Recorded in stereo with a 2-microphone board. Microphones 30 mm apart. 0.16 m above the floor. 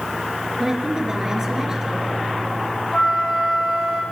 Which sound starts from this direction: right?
A woman speaking, at 0.6 s.